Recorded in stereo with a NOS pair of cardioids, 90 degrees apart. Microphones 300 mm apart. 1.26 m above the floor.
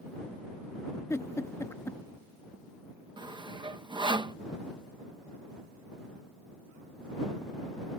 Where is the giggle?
10° left.